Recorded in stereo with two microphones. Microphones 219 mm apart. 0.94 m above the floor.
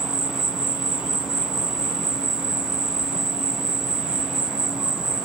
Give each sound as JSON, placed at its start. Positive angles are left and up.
{"t": 0.0, "sound": "an insect", "side_deg": -5, "distance_m": 0.8}